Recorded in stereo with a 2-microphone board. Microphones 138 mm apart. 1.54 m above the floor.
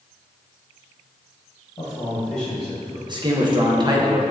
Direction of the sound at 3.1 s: 35° right (ahead or behind).